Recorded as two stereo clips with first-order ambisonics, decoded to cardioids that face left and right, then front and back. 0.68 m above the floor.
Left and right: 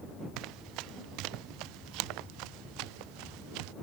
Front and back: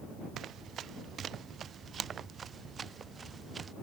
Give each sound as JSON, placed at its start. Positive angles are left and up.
{"t": 0.4, "sound": "running footsteps", "azimuth_deg": -125}